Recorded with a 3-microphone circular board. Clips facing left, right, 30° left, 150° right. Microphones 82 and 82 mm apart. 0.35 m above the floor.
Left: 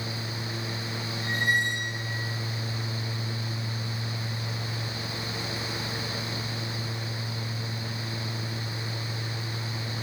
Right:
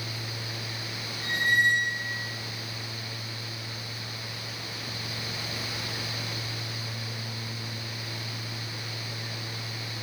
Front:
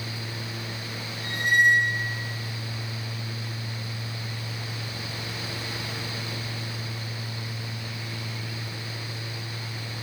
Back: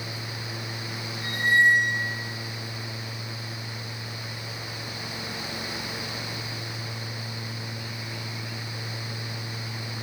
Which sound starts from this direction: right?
A squeak, at 1.2 s.